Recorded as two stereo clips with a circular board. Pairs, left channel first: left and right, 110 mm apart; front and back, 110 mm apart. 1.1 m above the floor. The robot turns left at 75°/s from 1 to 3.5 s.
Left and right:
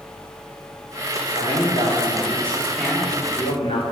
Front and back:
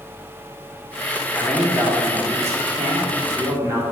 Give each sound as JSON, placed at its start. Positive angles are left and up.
{"t": 1.3, "sound": "a man speaking", "azimuth_deg": -75, "distance_m": 3.5}